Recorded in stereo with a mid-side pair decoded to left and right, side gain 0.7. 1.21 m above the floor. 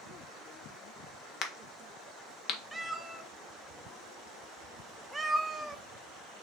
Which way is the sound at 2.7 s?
10° right.